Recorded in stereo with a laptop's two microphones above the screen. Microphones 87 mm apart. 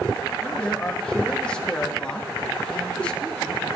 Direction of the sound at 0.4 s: 10° left (ahead or behind).